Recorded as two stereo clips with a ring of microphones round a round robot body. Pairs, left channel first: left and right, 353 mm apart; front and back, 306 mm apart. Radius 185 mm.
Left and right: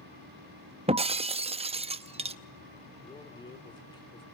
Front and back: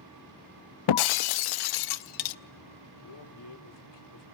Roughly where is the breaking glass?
Ahead.